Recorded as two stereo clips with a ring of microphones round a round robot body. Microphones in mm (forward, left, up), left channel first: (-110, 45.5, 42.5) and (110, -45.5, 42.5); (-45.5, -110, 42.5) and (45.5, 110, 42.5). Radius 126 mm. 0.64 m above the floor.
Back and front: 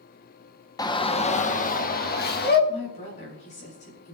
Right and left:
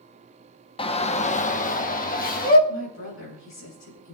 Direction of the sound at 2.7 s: 140° right.